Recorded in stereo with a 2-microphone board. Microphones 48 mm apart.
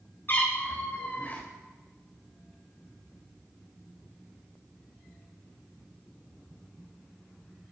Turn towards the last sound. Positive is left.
turn(degrees=35)  # may be behind; listen again after turning